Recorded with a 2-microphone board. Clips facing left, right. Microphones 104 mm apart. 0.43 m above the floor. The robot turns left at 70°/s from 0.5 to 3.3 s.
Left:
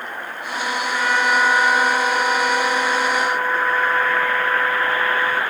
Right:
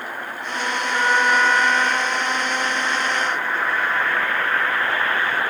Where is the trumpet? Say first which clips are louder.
Right 1 dB; 150° right; by 5.4 s 45° left.